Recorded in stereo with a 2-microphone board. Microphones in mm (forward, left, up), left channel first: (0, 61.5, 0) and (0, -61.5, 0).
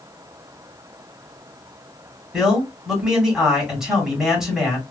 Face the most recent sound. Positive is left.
turn(degrees=-5)  # may be behind; listen again after turning